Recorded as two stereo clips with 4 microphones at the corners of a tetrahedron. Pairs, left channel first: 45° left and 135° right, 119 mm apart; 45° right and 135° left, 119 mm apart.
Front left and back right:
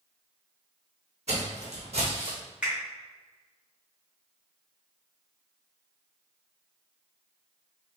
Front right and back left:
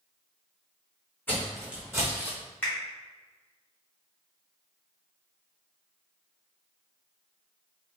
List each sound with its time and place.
1.3 s footsteps: 115° right, 0.9 m; by 2.4 s 175° right, 1.2 m
2.6 s a finger snap: 75° right, 1.3 m